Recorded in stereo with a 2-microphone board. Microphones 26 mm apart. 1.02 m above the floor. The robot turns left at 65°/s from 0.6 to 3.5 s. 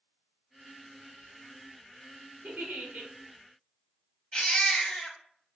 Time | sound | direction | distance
2.4 | a giggle | 80° right | 1.2 m
4.3 | a baby crying | 30° left (ahead or behind) | 0.7 m